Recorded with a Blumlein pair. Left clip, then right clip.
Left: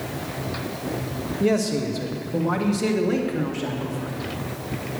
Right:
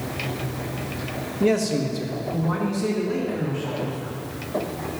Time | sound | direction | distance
1.4 | a man speaking | straight ahead | 1.3 m